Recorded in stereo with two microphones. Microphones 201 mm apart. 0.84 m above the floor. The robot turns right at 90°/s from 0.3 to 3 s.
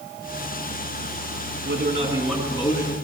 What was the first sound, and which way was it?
A man speaking, 65° right.